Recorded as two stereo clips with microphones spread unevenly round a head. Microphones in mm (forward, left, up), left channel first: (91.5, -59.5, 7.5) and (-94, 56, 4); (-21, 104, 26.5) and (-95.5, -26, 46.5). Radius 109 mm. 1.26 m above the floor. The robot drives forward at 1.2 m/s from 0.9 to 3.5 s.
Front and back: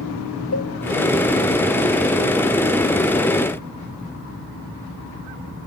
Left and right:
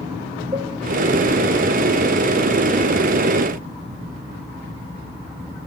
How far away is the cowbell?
About 1.2 m.